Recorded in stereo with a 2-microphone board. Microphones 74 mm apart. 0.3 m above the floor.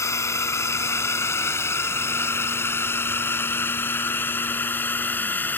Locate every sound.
0.0 s a drone: 35° left (ahead or behind); by 5.6 s 20° left (ahead or behind)